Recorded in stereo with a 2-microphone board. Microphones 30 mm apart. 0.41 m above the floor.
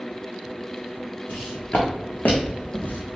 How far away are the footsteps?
About 1.8 m.